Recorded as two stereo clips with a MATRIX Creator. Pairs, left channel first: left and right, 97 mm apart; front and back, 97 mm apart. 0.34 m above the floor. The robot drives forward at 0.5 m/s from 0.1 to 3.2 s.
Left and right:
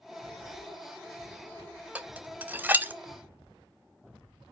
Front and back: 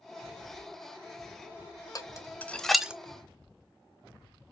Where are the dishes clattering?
20° right, 0.6 m; by 2.9 s 125° right, 0.5 m.